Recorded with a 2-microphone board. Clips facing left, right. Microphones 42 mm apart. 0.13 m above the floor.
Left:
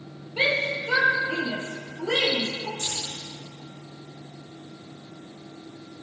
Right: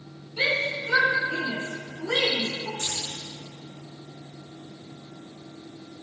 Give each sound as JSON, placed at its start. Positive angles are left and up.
{"t": 0.4, "sound": "a shout", "side_deg": 40, "distance_m": 4.5}
{"t": 2.8, "sound": "keys jangling", "side_deg": -50, "distance_m": 6.5}